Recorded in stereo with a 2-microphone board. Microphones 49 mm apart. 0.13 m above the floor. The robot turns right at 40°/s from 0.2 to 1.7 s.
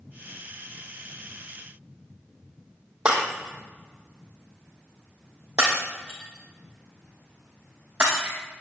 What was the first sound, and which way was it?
Breaking glass, 20° right (ahead or behind).